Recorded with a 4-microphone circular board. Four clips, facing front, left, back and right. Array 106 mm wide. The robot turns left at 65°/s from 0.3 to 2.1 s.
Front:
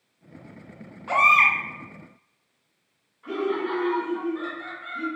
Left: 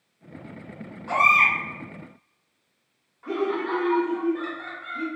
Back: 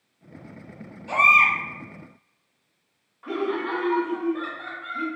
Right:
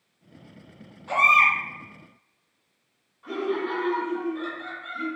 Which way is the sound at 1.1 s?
15° left.